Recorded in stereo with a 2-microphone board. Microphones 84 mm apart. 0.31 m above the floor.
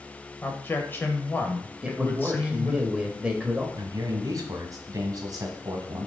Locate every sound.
0.4 s a man speaking: 25° left (ahead or behind), 1.0 m
1.8 s a man speaking: 15° right (ahead or behind), 1.1 m
3.8 s a man speaking: 50° right (ahead or behind), 1.8 m